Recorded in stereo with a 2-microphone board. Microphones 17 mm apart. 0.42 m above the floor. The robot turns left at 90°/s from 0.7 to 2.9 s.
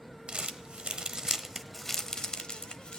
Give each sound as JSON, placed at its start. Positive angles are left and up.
{"t": 0.3, "sound": "crumpling", "side_deg": -70, "distance_m": 0.9}